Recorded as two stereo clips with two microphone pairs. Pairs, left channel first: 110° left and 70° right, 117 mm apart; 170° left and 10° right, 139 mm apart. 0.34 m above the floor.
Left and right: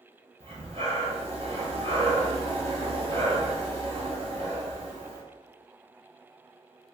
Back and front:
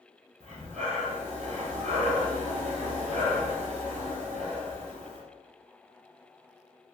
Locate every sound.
0.4 s breathing: 40° right, 1.1 m